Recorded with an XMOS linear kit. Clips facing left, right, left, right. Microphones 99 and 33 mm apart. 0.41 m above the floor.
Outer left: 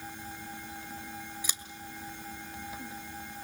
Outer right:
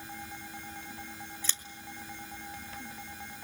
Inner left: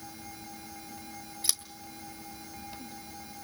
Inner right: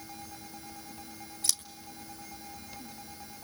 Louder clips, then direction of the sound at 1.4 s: Even, even; 15° left (ahead or behind).